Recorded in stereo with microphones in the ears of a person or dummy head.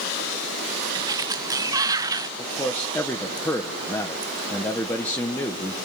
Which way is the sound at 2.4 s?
10° left (ahead or behind).